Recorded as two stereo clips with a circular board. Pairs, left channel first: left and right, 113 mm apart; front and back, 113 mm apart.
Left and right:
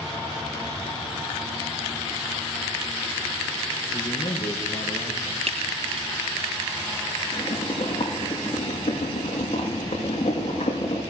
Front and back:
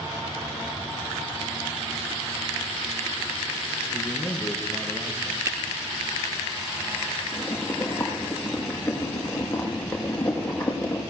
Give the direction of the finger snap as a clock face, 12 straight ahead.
4 o'clock.